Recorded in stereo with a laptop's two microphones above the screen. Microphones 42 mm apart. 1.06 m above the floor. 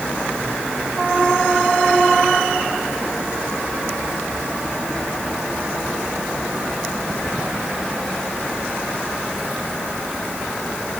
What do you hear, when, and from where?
Only background noise.